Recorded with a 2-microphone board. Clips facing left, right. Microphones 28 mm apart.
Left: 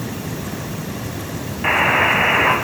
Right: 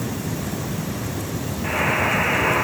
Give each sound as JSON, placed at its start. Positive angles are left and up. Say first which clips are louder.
{"t": 1.6, "sound": "a buzzer", "louder": "left 6 dB", "side_deg": 50, "distance_m": 5.0}